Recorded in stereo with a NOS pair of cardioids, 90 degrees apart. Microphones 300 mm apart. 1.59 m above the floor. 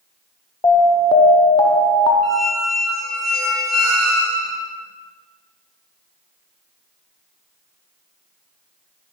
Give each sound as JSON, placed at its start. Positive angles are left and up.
{"t": 0.6, "sound": "an alarm", "azimuth_deg": 15, "distance_m": 0.8}
{"t": 2.2, "sound": "a squeak", "azimuth_deg": -60, "distance_m": 1.9}